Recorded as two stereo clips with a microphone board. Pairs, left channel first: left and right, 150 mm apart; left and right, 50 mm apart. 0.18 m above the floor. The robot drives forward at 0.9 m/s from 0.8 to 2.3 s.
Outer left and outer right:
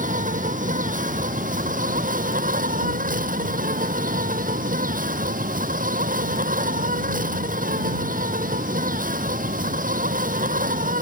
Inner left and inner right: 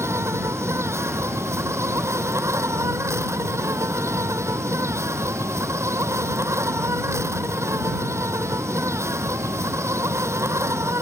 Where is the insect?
60° right (ahead or behind); by 11.0 s 65° right (ahead or behind).